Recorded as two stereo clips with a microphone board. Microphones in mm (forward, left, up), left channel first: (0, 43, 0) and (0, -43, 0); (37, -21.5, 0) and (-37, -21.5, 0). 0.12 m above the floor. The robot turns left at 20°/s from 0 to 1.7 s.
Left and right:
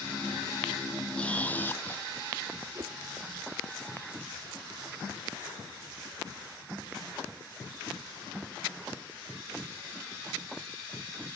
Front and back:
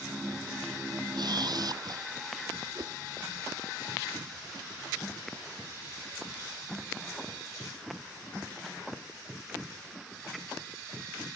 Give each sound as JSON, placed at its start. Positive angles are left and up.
{"t": 1.1, "sound": "a camera shutter", "azimuth_deg": 165}
{"t": 2.8, "sound": "a whoosh", "azimuth_deg": -140}